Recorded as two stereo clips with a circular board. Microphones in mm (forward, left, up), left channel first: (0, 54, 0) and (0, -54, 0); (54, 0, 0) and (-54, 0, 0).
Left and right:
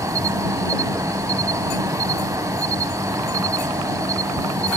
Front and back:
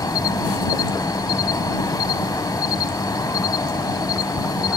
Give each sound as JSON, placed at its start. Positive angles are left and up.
{"t": 0.0, "sound": "an insect", "azimuth_deg": -40}